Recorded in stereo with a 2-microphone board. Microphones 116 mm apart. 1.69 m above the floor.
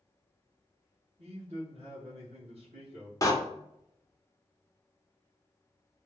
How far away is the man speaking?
About 2 m.